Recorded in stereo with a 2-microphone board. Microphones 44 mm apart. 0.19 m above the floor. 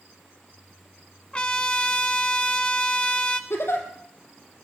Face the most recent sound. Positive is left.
turn(degrees=70)  # may be behind; listen again after turning